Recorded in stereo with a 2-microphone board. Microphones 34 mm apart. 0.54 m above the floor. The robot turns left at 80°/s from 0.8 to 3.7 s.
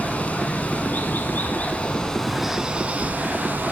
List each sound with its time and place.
0.0 s running water: 125° left, 0.8 m; by 3.7 s 105° right, 0.8 m